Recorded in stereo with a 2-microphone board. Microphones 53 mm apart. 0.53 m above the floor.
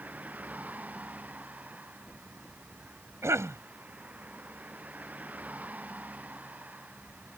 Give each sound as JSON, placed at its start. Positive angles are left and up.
{"t": 0.0, "sound": "a vehicle", "side_deg": -30}
{"t": 3.2, "sound": "a cough", "side_deg": -60}